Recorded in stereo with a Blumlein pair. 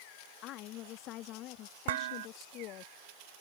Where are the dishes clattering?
55° right.